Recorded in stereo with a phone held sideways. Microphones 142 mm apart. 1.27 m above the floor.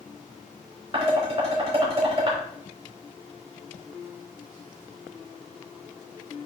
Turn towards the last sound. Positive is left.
turn(degrees=-40)  # may be behind; listen again after turning